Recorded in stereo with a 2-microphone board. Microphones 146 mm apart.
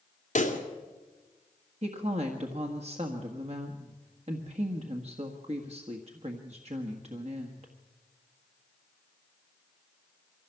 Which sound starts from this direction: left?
A pop, at 0.3 s.